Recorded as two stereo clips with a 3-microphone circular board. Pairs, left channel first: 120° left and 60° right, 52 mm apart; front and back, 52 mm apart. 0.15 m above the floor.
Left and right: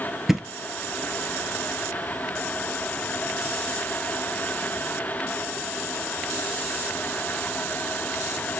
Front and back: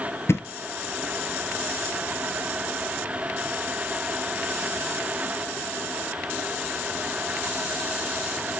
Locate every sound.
0.3 s a thud: 25° left, 0.9 m